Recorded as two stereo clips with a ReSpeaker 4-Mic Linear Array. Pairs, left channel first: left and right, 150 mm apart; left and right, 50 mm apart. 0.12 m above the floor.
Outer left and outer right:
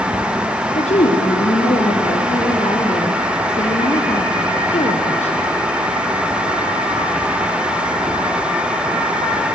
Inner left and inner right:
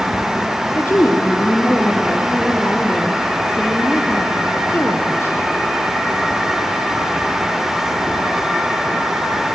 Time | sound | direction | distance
0.8 | a woman speaking | 50° left (ahead or behind) | 2.5 m